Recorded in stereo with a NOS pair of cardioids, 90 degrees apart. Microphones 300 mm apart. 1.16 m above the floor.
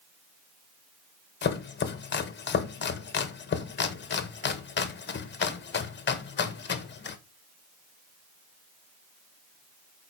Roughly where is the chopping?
Ahead left.